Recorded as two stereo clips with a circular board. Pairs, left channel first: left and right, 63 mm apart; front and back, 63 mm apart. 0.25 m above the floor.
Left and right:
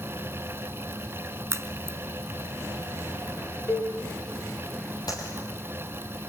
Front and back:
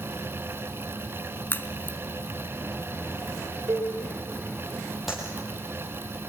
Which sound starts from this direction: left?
A clap, at 5.1 s.